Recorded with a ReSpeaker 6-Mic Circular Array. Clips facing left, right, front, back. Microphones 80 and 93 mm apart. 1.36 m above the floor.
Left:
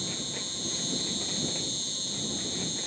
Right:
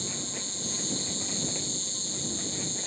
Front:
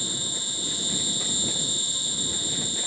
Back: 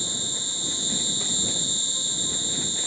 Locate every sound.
0.0 s an insect: 115° left